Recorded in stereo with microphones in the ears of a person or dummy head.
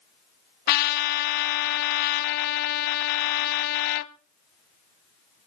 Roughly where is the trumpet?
Left.